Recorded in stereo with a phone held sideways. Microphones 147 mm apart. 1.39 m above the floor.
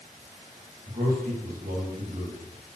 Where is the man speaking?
70° right (ahead or behind), 2.5 m.